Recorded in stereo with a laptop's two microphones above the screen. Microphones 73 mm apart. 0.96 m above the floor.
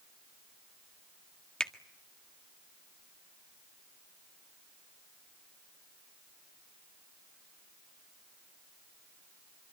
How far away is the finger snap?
About 1.7 m.